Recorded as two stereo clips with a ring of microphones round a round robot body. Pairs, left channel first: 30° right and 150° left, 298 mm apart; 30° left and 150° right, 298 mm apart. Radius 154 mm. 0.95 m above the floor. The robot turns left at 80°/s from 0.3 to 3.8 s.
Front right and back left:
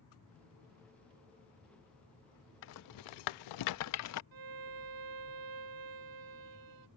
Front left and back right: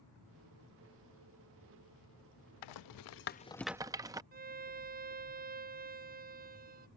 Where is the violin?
150° left.